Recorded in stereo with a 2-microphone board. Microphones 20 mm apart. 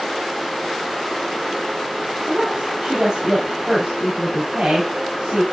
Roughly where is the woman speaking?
Right.